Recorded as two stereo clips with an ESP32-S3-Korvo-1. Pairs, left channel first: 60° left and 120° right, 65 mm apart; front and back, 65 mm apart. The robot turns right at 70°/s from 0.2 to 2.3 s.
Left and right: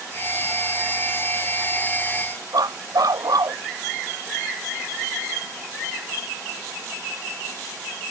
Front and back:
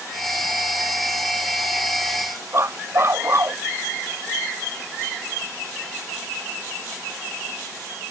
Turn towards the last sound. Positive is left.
turn(degrees=-135)